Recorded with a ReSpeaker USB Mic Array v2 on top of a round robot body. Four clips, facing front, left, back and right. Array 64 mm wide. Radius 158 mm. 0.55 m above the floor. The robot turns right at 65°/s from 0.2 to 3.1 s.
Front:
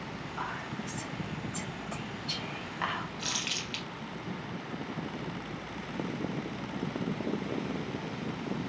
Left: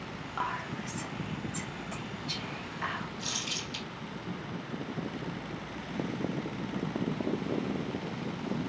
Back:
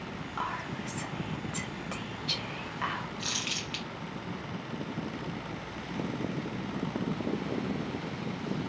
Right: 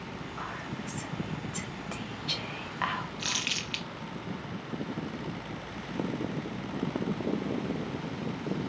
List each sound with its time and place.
0.4 s whispering: 120° left, 1.4 m; by 3.4 s 65° right, 1.4 m
3.2 s crumpling: 90° right, 0.8 m